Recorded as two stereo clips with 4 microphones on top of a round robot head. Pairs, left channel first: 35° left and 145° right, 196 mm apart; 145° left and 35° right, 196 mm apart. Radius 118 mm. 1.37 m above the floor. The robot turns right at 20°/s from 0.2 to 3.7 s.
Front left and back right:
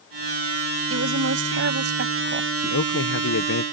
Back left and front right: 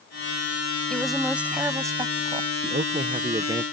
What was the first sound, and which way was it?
A woman speaking, 130° right.